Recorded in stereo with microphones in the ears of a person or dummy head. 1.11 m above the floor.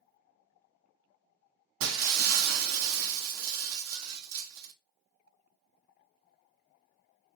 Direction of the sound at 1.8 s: 70° right (ahead or behind).